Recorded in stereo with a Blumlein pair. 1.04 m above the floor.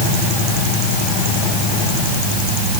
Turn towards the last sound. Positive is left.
No sound to turn to.